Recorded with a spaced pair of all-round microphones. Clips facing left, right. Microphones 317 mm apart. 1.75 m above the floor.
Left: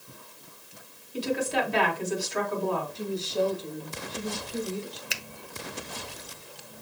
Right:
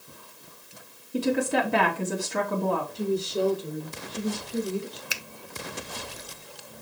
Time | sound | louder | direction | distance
1.1 | a woman speaking | right 4 dB | 60° right (ahead or behind) | 2.5 m
3.0 | a woman speaking | right 3 dB | 20° right (ahead or behind) | 4 m
5.1 | a finger snap | even | centre (ahead or behind) | 0.7 m